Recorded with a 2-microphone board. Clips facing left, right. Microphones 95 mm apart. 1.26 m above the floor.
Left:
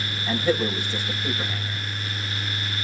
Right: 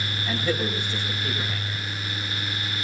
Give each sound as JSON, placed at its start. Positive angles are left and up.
{"t": 0.3, "sound": "a man speaking", "side_deg": 5, "distance_m": 6.5}